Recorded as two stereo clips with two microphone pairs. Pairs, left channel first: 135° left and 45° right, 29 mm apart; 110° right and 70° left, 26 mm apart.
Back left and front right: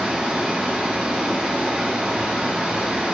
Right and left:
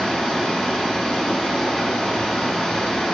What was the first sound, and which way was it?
Running water, 55° right.